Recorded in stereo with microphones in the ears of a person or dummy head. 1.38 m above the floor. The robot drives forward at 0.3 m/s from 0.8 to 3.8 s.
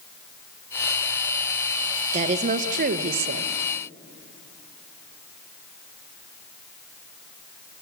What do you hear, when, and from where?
2.1 s a woman speaking: 35° right (ahead or behind), 1.0 m; by 3.5 s 55° right (ahead or behind), 0.7 m